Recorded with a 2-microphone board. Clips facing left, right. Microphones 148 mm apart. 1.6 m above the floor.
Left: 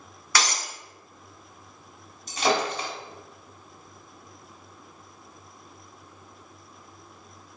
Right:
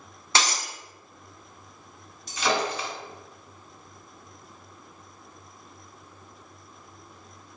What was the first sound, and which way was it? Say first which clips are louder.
Breaking glass: right 1 dB; 25° right (ahead or behind).